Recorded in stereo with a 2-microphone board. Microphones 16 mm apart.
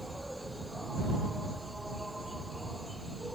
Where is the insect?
Centre (ahead or behind).